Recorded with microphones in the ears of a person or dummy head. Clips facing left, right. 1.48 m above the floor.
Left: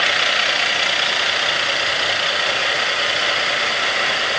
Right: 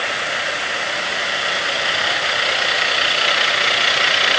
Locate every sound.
Only background noise.